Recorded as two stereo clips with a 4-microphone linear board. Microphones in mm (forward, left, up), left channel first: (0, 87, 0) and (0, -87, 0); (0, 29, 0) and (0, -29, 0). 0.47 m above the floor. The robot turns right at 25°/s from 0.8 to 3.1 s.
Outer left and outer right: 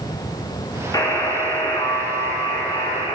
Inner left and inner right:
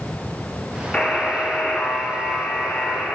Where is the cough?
I don't hear a cough.